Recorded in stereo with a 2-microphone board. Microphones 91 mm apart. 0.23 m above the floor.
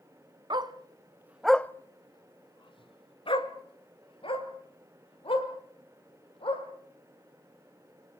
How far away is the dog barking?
About 1.0 m.